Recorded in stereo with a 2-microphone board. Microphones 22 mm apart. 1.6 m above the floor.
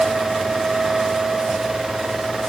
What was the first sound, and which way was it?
Only background noise.